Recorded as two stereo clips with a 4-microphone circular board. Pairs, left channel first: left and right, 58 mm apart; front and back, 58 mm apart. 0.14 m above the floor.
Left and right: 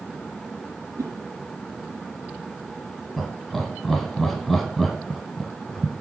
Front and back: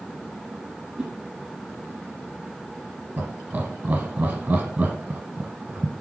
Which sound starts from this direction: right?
A whoosh, at 1.0 s.